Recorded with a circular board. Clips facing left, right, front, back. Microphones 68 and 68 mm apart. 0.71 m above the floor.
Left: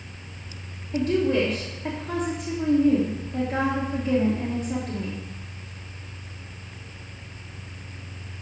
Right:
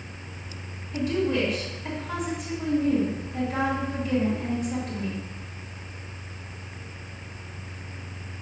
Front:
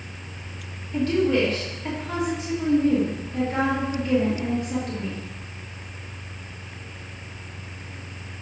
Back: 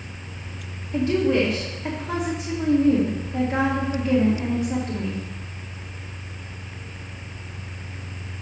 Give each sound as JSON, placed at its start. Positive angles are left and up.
{"t": 0.9, "sound": "a woman speaking", "azimuth_deg": 115, "distance_m": 1.6}